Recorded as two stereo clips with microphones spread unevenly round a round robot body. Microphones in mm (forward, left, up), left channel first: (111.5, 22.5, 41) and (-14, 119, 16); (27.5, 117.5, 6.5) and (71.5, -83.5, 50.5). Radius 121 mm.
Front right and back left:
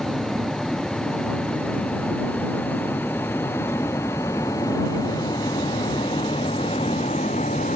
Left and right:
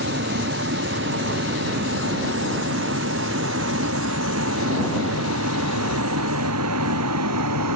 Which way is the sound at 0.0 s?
125° right.